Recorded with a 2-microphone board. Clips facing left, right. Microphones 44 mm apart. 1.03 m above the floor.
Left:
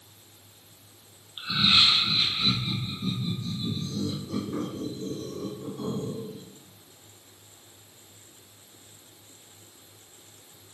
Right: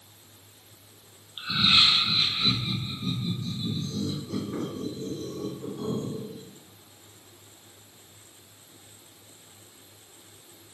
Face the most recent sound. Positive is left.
turn(degrees=5)  # may be behind; listen again after turning